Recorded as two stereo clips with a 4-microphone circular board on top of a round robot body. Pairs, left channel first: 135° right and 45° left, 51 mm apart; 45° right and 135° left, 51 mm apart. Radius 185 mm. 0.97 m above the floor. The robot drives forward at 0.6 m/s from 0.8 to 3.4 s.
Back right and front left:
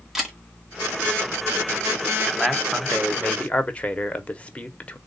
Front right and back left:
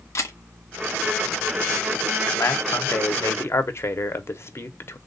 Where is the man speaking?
40° right, 1.4 m; by 5.0 s 70° right, 1.0 m.